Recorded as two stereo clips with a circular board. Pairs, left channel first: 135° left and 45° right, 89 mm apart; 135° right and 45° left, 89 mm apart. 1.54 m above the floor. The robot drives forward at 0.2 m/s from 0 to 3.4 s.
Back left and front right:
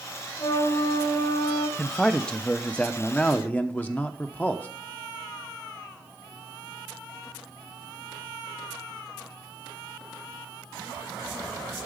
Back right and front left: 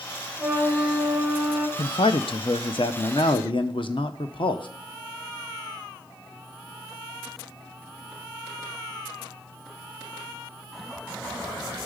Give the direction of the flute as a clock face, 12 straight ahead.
8 o'clock.